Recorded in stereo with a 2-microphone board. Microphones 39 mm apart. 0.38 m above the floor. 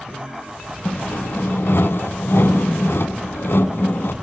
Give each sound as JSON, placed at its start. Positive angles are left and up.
{"t": 0.8, "sound": "sawing", "side_deg": 80, "distance_m": 0.7}